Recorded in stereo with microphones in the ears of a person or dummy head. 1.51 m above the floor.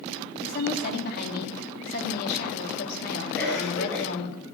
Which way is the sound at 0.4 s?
50° left (ahead or behind).